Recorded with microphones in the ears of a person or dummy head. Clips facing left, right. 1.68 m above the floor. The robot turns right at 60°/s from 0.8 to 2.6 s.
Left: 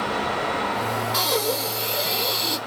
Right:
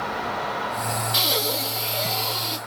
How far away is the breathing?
About 1.9 m.